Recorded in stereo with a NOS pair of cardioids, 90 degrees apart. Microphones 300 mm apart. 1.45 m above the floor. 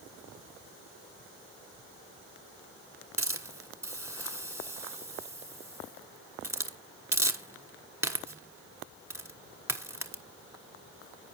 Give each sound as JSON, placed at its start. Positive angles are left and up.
{"t": 3.2, "sound": "a hiss", "azimuth_deg": -10, "distance_m": 1.2}